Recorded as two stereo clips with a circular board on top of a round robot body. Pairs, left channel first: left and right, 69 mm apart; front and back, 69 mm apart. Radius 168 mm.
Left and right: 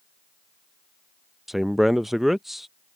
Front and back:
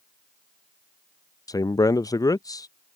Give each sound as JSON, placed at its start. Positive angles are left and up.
{"t": 1.5, "sound": "a man speaking", "azimuth_deg": -5}